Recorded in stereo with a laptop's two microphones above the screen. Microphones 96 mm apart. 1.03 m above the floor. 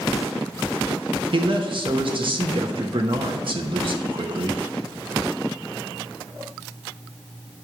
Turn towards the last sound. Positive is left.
turn(degrees=-60)  # may be behind; listen again after turning